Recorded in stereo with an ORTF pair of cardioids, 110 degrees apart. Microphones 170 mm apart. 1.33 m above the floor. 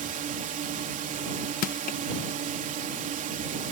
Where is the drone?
50° right.